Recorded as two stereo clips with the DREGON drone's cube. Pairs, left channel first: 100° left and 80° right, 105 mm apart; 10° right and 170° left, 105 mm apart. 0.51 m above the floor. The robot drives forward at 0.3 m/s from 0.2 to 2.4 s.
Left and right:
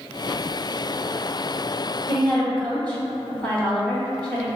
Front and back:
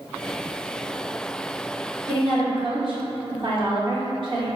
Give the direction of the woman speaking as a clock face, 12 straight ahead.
6 o'clock.